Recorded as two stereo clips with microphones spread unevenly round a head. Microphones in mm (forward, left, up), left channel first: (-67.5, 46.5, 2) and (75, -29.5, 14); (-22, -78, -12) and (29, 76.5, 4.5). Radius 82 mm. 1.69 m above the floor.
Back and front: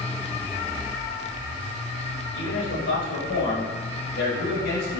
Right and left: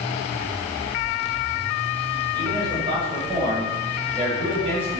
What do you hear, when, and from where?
2.3 s a man speaking: 135° left, 7.5 m; by 5.0 s 120° left, 9 m